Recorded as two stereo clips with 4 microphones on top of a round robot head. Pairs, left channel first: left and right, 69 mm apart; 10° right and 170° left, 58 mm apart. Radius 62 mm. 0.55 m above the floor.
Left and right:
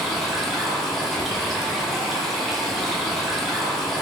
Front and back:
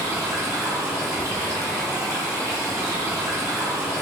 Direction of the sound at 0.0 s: 175° left.